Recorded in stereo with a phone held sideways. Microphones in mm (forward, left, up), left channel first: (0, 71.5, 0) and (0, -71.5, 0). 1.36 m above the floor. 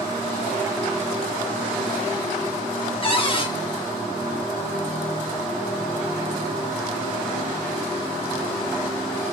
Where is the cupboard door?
40° left (ahead or behind), 0.5 m.